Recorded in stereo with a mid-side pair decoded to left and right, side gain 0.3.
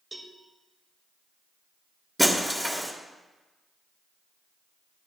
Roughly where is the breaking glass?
Ahead.